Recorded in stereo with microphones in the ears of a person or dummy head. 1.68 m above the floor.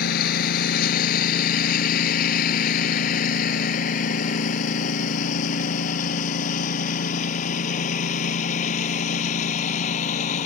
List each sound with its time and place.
0.0 s a lawn mower: 55° left (ahead or behind); by 10.5 s 45° left (ahead or behind)